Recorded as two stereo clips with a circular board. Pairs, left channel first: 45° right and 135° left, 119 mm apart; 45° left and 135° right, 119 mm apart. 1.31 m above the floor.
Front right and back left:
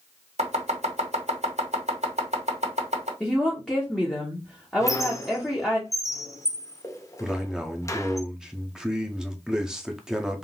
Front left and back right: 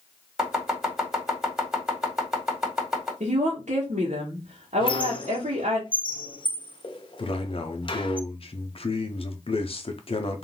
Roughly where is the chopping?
Behind left.